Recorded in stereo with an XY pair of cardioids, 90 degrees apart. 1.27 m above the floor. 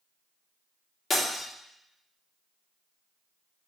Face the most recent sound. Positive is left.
turn(degrees=45)